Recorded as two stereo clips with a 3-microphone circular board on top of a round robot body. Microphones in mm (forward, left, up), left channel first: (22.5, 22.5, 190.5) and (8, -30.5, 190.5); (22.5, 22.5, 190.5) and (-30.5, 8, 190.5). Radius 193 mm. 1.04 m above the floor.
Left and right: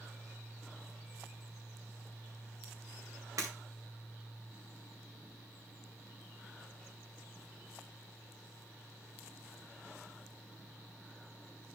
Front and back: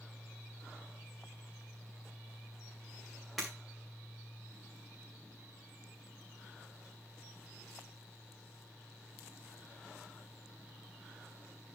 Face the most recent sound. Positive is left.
turn(degrees=-75)